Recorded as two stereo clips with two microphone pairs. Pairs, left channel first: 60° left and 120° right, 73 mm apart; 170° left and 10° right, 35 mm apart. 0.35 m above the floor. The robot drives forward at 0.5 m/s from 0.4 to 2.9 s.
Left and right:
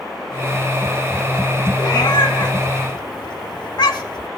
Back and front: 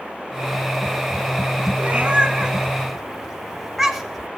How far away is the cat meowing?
About 1.1 m.